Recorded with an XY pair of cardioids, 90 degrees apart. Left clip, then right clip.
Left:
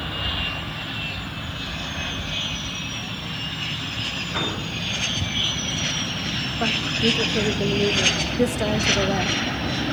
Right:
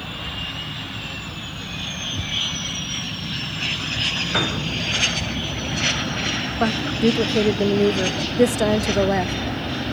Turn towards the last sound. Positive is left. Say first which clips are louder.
# right 1 dB
turn(degrees=-45)